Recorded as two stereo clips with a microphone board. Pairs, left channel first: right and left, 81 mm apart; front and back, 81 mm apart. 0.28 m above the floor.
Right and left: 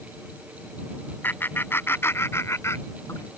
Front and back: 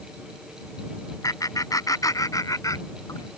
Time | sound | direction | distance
1.2 | laughter | 30° right | ?